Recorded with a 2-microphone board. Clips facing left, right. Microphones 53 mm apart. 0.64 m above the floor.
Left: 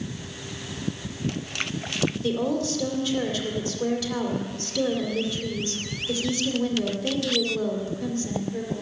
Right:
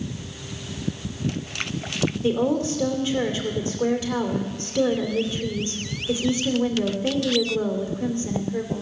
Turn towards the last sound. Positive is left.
turn(degrees=-30)  # may be behind; listen again after turning